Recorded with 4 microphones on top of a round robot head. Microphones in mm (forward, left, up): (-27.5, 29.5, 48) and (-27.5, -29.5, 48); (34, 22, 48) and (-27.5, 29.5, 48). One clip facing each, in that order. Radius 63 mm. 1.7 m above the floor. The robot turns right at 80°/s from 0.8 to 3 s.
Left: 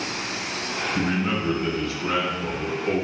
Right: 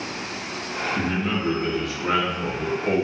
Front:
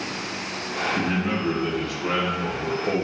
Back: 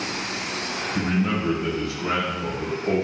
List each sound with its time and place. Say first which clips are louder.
0.9 s a man speaking: left 1 dB, back 4 dB; 130° left, 0.7 m; by 3.0 s 65° right, 0.7 m